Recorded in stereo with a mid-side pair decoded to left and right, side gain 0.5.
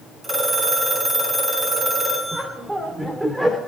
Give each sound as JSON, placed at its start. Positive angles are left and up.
{"t": 0.2, "sound": "a phone ringing", "azimuth_deg": -25, "distance_m": 7.5}
{"t": 2.3, "sound": "laughter", "azimuth_deg": -15, "distance_m": 2.5}